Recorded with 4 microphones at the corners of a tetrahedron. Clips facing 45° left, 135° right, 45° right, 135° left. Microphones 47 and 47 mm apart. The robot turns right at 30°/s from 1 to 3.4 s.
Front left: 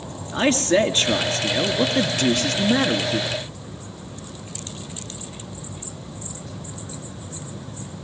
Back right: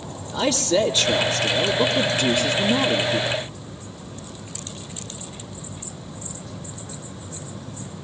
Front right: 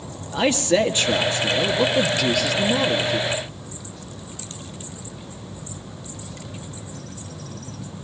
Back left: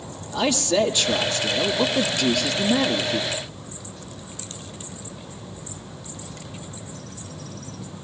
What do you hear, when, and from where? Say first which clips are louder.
0.3 s a man speaking: front left 2 dB, front right 2 dB; 5° left, 2.5 m; by 3.3 s 75° left, 2.5 m